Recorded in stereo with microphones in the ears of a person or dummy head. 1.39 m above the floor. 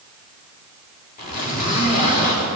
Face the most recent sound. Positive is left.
turn(degrees=45)  # may be behind; listen again after turning